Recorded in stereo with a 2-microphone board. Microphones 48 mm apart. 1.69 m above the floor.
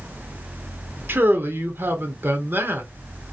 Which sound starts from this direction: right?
A man speaking, at 1.1 s.